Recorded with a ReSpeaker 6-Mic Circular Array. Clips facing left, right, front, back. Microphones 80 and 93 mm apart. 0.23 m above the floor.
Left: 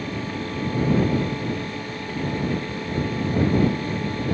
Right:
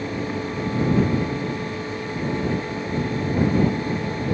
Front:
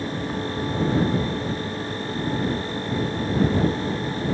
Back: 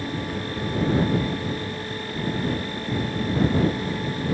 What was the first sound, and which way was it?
Only background noise.